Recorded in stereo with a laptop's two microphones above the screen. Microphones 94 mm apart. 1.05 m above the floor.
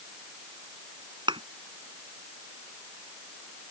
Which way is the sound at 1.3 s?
55° right (ahead or behind).